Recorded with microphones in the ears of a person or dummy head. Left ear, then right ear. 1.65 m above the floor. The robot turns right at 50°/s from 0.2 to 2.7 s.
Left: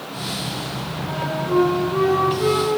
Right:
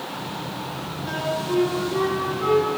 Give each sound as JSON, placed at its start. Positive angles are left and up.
{"t": 1.1, "sound": "a flute", "azimuth_deg": -80, "distance_m": 2.5}